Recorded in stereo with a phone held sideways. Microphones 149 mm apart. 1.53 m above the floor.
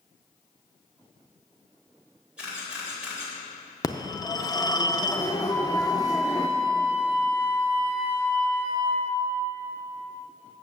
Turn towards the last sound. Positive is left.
turn(degrees=10)  # may be behind; listen again after turning